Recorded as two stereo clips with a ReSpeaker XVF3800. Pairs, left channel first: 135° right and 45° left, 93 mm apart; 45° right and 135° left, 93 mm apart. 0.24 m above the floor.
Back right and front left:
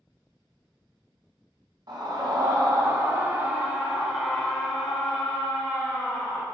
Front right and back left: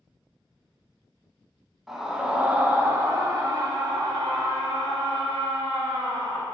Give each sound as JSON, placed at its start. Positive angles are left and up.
{"t": 1.9, "sound": "a scream", "azimuth_deg": 50, "distance_m": 1.5}